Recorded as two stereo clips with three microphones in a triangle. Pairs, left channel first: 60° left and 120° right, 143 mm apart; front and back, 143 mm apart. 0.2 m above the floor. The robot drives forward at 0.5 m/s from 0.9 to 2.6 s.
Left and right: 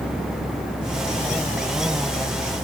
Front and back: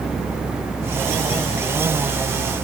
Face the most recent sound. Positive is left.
No sound to turn to.